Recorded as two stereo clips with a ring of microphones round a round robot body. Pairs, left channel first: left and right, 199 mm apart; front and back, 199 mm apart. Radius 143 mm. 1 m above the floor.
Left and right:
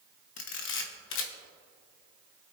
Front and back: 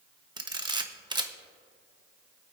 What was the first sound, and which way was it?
A camera shutter, 110° left.